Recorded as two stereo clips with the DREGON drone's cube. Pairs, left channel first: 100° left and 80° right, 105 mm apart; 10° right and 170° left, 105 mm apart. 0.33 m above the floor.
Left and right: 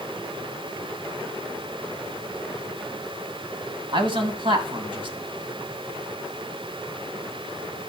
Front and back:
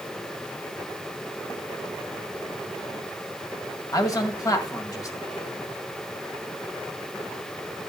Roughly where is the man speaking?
Ahead right.